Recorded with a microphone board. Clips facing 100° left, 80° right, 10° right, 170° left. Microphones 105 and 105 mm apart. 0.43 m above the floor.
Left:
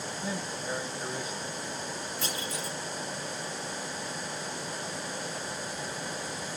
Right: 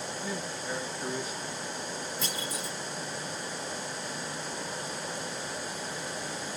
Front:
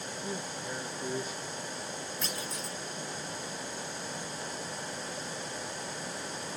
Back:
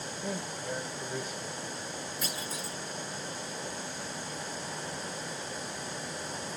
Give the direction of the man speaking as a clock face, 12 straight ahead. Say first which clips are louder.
Left 2 dB, back 3 dB; 7 o'clock.